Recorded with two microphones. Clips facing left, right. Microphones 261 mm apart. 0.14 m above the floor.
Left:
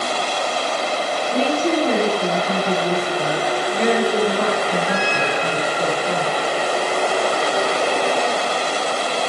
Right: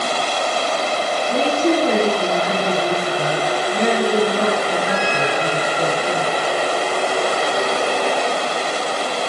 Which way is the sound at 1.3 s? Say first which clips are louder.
Right 2 dB; 20° right (ahead or behind).